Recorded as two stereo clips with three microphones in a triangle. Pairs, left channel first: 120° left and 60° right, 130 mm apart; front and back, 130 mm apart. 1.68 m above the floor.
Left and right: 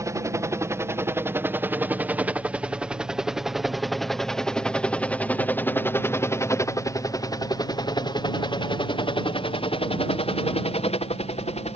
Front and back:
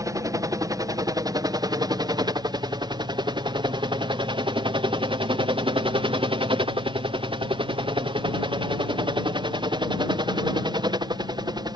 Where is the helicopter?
120° right; by 11.8 s 130° left.